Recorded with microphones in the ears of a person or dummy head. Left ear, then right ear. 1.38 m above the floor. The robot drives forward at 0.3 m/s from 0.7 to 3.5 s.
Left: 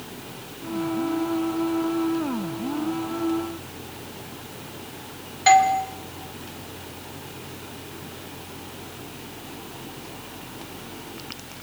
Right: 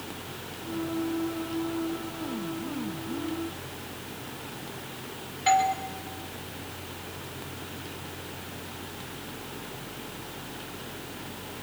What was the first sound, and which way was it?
A doorbell, 25° left (ahead or behind).